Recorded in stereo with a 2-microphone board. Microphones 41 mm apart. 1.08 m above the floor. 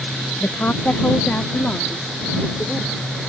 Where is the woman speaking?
60° left (ahead or behind); by 3.0 s 40° left (ahead or behind).